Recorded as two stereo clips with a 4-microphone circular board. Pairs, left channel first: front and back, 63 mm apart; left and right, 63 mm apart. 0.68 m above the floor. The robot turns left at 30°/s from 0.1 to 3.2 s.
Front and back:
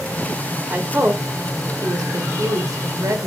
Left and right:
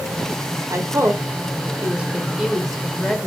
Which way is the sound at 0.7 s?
120° right.